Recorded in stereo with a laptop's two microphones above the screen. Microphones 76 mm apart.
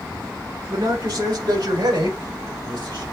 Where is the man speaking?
65° right (ahead or behind), 2.5 m; by 3.0 s 85° right, 5 m.